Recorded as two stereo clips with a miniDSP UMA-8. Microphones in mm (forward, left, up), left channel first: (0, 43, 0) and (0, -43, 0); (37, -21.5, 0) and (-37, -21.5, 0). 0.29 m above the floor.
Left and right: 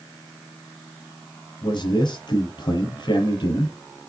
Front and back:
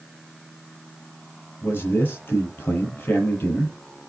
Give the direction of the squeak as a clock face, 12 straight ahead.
No squeak in this recording.